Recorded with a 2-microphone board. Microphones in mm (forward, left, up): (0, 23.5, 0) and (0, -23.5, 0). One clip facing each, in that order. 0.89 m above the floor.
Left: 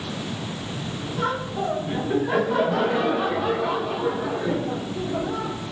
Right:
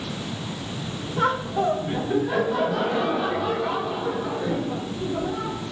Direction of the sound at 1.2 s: 45° right (ahead or behind).